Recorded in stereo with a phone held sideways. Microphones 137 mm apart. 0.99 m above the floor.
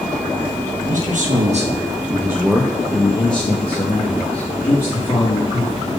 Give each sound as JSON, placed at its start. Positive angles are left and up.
{"t": 0.9, "sound": "a man speaking", "side_deg": -75, "distance_m": 1.0}